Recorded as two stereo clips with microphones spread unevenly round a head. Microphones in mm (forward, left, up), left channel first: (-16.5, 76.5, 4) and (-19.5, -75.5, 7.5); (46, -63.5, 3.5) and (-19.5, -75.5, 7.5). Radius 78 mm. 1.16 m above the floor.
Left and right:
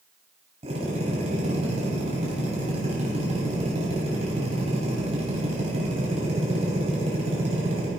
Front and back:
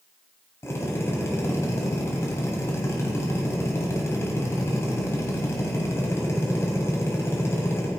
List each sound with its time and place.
0.6 s a drill: 40° right, 3.5 m